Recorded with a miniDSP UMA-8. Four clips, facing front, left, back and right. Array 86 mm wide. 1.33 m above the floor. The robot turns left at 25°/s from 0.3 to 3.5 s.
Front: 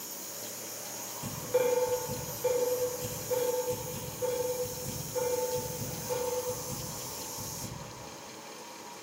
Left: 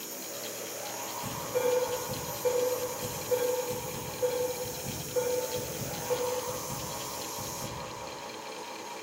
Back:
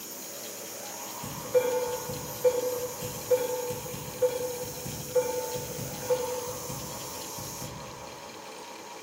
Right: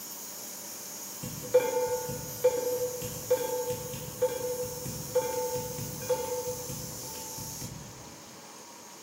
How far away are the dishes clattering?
About 2.5 m.